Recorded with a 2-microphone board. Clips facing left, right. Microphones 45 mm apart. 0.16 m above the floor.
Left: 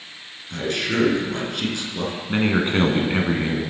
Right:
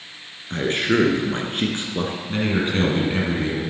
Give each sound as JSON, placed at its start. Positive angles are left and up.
{"t": 0.5, "sound": "a man speaking", "side_deg": -35, "distance_m": 2.0}
{"t": 2.3, "sound": "a man speaking", "side_deg": 25, "distance_m": 1.7}